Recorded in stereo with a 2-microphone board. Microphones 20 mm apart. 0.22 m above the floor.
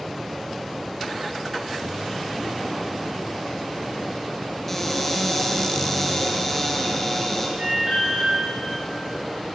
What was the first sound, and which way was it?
A cupboard door, 15° left (ahead or behind).